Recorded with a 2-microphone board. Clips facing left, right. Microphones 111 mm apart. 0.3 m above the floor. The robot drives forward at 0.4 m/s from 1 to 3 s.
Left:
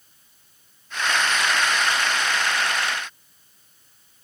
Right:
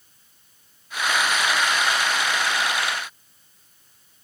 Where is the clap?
No clap in this recording.